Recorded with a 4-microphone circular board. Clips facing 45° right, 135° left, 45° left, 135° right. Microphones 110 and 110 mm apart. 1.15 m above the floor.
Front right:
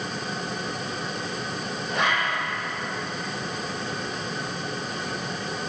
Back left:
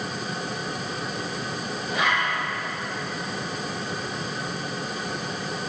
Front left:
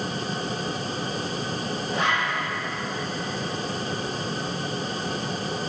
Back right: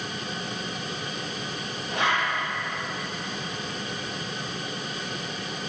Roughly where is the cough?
No cough in this recording.